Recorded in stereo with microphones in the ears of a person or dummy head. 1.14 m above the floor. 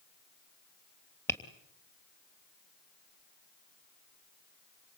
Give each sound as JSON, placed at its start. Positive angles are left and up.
{"t": 1.3, "sound": "tapping", "side_deg": 15, "distance_m": 3.0}